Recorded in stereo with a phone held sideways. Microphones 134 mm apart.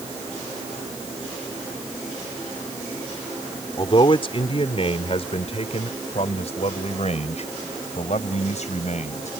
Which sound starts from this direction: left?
A man speaking, at 3.8 s.